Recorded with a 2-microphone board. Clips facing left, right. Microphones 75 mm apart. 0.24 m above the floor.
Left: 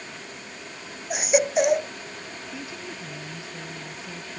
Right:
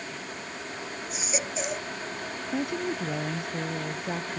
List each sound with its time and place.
1.1 s a baby crying: 60° left (ahead or behind)
2.5 s a woman speaking: 55° right (ahead or behind)